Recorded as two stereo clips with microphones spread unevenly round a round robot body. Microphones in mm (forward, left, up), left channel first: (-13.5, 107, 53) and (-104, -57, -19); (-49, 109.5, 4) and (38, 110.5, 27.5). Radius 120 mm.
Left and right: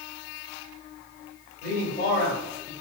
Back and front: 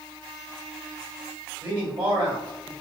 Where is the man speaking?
Straight ahead, 1.8 m.